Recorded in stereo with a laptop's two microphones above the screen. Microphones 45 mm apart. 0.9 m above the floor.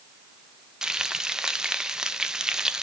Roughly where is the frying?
Centre.